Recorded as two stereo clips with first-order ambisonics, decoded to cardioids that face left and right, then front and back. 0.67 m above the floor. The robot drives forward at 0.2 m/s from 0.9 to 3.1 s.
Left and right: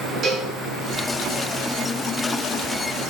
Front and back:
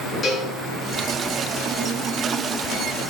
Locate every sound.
0.2 s a cowbell: 50° right, 0.5 m